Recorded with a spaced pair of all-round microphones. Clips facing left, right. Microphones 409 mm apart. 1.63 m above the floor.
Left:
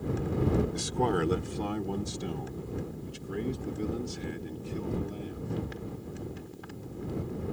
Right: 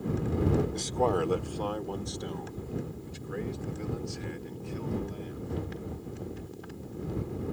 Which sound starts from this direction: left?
A man speaking, at 0.7 s.